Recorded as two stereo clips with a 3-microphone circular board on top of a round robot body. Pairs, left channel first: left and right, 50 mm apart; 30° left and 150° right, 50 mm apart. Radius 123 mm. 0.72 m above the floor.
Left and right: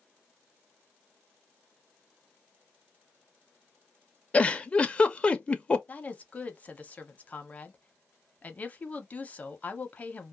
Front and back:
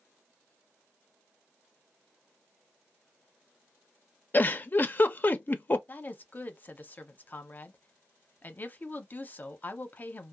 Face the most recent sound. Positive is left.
turn(degrees=50)